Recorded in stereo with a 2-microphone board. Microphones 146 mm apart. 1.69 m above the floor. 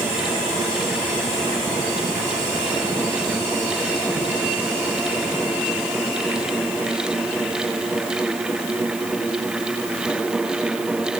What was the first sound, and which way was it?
Only background noise.